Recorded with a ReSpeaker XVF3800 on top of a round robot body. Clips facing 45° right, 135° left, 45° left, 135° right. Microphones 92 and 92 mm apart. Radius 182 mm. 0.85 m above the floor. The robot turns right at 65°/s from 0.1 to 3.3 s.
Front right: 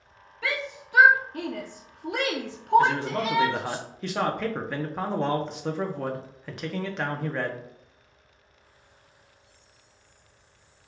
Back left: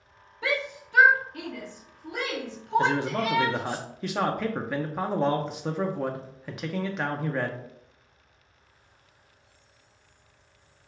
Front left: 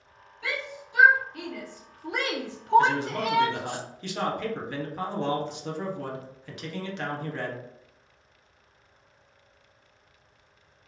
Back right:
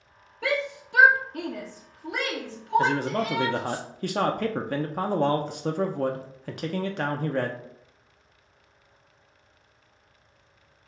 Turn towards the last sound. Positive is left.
turn(degrees=-140)